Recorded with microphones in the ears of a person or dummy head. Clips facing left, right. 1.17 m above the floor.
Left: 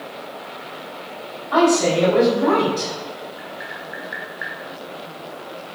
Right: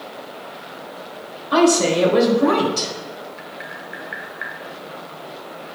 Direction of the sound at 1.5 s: 40° right (ahead or behind).